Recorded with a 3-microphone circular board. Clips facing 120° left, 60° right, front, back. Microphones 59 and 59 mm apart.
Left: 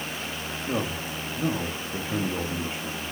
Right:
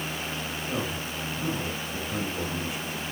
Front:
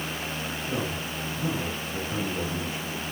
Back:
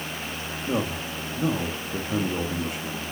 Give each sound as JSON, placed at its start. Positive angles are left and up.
{"t": 0.7, "sound": "a man speaking", "azimuth_deg": 170, "distance_m": 1.4}